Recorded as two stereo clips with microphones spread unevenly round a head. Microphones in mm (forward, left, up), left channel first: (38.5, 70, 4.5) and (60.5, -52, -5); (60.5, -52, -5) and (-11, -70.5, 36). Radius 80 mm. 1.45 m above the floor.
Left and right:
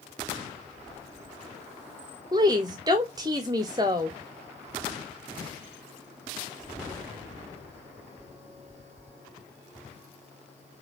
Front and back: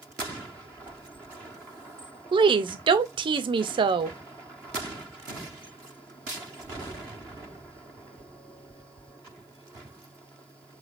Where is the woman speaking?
145° right, 0.7 m.